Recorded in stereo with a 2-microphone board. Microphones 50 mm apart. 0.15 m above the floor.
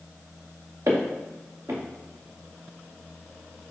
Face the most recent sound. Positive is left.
turn(degrees=-65)  # may be behind; listen again after turning